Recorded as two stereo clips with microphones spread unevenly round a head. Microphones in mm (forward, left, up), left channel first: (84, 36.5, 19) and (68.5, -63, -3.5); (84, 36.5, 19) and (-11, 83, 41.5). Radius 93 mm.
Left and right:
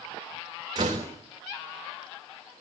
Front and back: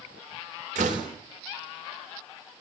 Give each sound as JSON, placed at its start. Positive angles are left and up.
{"t": 0.8, "sound": "a door slam", "azimuth_deg": -165, "distance_m": 3.5}